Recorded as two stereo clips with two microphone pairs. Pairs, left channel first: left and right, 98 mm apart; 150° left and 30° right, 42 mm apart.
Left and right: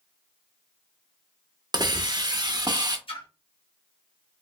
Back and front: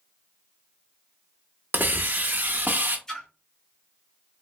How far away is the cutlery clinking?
No cutlery clinking in this recording.